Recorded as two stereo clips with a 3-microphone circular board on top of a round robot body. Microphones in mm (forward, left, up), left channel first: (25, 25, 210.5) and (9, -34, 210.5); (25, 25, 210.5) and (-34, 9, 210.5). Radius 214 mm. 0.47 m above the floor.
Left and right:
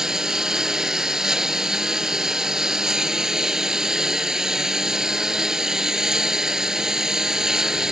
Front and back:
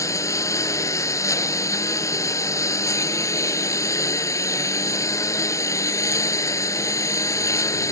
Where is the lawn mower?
25° right.